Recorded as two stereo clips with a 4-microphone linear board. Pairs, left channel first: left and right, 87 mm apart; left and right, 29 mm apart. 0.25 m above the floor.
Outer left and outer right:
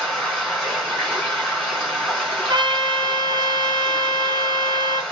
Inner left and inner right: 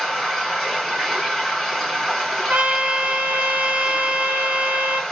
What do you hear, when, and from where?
0.0 s running water: 5° left (ahead or behind), 2 m
2.5 s a trumpet: 55° right (ahead or behind), 1.2 m